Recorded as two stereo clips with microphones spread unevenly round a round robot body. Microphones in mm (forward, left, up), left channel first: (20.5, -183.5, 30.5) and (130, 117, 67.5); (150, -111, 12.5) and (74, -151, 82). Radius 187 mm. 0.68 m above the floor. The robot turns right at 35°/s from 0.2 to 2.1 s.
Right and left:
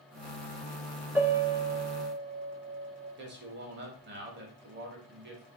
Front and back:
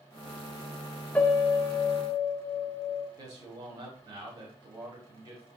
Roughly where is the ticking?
I don't hear ticking.